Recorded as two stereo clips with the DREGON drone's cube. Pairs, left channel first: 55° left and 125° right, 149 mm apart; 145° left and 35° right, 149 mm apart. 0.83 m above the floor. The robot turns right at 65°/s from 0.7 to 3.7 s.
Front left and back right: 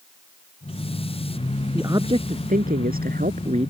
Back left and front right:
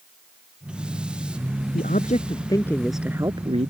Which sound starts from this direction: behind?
A man speaking, at 1.7 s.